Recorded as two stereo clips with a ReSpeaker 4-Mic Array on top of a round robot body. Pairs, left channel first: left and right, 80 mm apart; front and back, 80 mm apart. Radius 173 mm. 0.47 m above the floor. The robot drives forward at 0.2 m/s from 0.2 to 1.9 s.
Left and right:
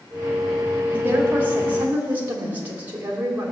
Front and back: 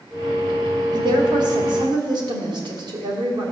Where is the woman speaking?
155° right, 2.5 m.